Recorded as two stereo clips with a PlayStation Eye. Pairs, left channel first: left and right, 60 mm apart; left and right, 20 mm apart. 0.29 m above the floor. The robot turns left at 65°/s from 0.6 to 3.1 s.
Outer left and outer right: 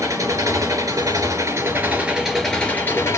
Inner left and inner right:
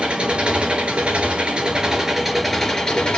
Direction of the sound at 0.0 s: 60° right.